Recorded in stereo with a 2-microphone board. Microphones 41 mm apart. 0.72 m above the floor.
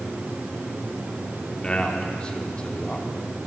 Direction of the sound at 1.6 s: 25° left (ahead or behind).